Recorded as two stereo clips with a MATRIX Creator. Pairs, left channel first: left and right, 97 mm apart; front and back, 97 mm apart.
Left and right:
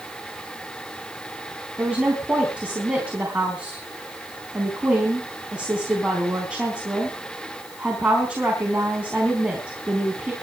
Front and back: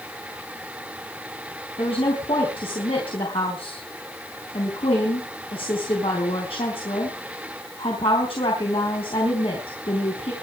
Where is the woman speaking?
10° right, 4 m.